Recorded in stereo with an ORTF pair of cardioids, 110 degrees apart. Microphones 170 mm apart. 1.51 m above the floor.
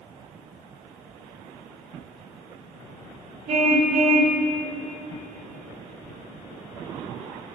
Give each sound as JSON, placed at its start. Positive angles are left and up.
{"t": 3.5, "sound": "a car horn", "azimuth_deg": -45, "distance_m": 3.5}